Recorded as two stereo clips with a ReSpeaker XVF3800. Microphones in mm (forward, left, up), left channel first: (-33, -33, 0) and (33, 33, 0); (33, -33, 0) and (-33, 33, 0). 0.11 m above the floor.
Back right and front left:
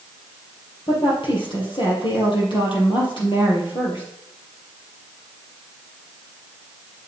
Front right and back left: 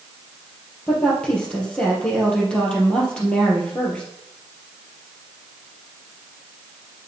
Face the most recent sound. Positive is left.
turn(degrees=-125)